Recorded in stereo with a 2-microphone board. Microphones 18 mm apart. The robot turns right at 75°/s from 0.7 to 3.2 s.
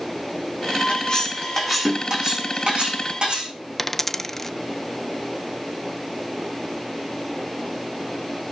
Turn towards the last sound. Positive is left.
turn(degrees=25)  # may be behind; listen again after turning